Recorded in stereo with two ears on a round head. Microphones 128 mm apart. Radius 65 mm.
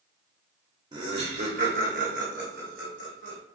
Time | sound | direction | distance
0.9 | laughter | 30° right (ahead or behind) | 0.6 m